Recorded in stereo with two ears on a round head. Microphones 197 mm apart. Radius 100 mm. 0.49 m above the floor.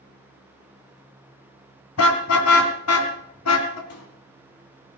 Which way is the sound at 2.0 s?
65° left (ahead or behind).